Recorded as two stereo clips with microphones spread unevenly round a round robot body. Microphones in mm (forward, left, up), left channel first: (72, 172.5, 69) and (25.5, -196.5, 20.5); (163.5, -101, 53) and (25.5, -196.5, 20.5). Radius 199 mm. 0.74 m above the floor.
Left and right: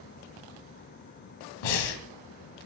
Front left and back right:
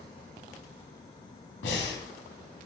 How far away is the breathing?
About 3.5 m.